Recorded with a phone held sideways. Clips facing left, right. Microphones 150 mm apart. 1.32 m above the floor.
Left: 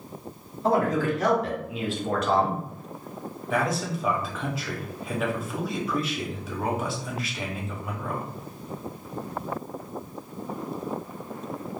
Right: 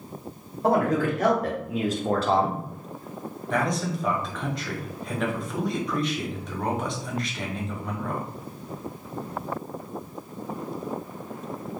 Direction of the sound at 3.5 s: 5° left (ahead or behind).